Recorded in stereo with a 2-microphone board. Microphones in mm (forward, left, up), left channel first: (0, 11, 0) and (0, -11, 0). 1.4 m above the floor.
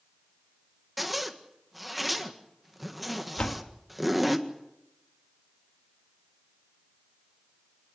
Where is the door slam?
65° left (ahead or behind), 1.6 m.